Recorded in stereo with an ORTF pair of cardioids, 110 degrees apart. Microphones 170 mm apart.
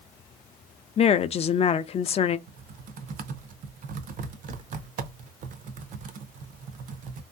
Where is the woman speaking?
40° left, 0.5 m.